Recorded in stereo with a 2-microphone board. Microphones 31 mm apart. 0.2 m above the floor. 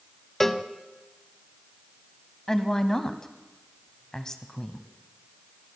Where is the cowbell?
10° left (ahead or behind), 0.5 m.